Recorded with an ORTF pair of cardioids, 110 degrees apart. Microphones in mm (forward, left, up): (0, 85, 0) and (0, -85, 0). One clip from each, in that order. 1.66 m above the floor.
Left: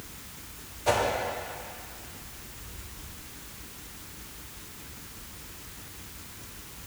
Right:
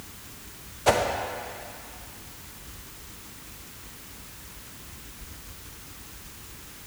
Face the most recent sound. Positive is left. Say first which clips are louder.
# right 3 dB
turn(degrees=-35)